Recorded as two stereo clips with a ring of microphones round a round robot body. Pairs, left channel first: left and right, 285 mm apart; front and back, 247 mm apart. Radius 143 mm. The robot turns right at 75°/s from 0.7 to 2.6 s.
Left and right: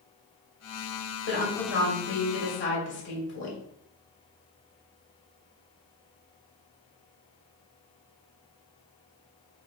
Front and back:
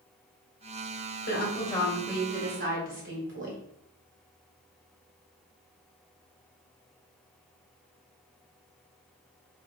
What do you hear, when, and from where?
1.3 s a woman speaking: 40° left, 2.0 m; by 3.6 s 140° left, 2.0 m